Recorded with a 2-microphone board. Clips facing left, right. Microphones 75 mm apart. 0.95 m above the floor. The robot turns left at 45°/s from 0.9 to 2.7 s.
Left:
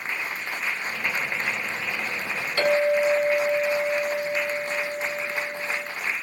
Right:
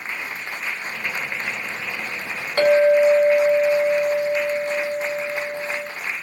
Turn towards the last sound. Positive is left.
turn(degrees=-45)  # may be behind; listen again after turning